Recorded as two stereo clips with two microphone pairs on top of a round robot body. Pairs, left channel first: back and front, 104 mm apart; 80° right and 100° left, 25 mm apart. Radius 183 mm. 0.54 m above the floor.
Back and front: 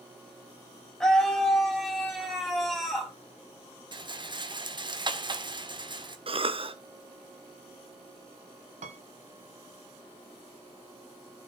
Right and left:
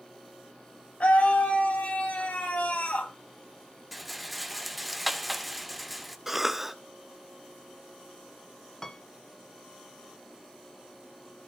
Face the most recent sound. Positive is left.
turn(degrees=-5)